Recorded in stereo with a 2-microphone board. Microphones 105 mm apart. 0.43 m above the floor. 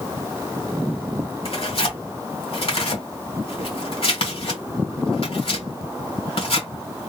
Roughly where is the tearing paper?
Left.